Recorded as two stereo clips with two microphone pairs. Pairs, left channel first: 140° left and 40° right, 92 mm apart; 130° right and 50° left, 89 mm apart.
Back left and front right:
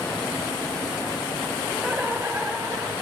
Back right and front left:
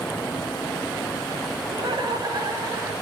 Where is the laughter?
35° left, 3.5 m; by 2.9 s straight ahead, 3 m.